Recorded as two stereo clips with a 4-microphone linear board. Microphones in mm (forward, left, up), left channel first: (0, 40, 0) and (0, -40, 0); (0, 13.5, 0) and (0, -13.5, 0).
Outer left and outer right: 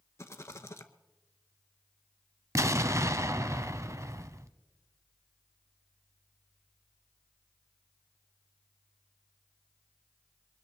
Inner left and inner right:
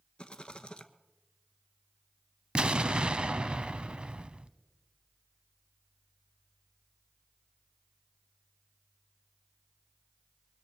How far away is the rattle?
About 0.9 m.